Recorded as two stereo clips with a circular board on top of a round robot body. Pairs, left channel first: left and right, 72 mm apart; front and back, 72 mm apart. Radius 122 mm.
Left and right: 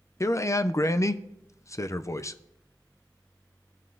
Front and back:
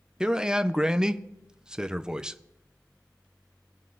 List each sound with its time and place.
0.2 s a man speaking: 105° left, 0.5 m